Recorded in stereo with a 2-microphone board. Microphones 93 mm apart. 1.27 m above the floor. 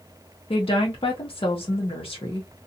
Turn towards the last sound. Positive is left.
turn(degrees=80)